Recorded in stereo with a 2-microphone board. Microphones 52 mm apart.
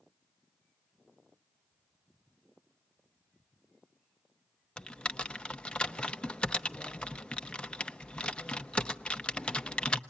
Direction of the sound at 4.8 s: 20° left (ahead or behind).